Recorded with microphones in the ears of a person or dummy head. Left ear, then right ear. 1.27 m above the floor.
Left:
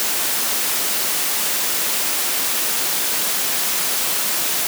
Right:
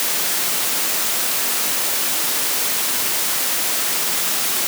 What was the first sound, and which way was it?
Only background noise.